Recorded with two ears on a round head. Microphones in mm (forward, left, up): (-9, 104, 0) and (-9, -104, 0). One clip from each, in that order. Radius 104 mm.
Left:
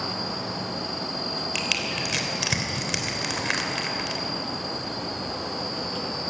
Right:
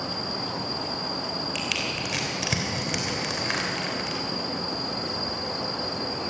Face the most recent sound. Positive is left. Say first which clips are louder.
# left 3 dB
turn(degrees=15)  # may be behind; listen again after turning